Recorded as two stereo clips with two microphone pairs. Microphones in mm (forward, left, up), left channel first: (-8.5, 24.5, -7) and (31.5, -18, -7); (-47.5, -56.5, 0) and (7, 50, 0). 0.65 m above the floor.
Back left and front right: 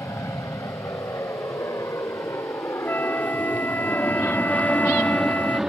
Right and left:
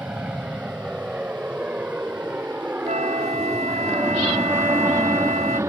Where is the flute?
75° left.